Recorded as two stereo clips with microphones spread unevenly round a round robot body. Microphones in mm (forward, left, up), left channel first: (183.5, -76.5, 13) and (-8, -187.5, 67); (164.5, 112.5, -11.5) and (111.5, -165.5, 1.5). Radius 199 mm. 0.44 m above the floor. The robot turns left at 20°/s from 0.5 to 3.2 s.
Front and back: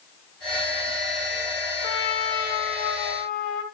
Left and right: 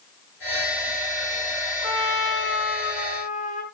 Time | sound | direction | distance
1.8 | a trumpet | 45° left | 4 m